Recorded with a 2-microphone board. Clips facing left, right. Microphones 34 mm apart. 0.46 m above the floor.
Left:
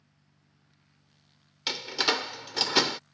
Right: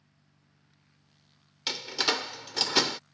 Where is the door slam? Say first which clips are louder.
Left 1 dB; 5° left (ahead or behind).